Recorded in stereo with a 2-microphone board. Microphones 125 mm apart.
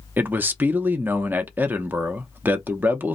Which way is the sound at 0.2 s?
15° right (ahead or behind).